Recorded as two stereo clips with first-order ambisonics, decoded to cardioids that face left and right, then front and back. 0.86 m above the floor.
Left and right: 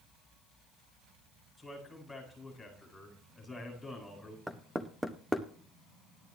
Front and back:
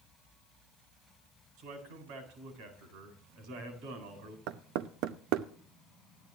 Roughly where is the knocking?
Behind.